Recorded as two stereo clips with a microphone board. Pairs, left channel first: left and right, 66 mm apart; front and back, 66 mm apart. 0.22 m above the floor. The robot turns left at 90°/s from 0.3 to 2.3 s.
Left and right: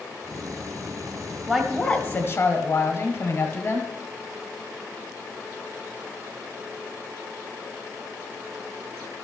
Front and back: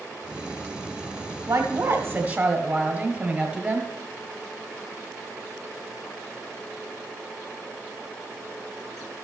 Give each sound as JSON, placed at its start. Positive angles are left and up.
{"t": 1.5, "sound": "a woman speaking", "azimuth_deg": -170, "distance_m": 1.5}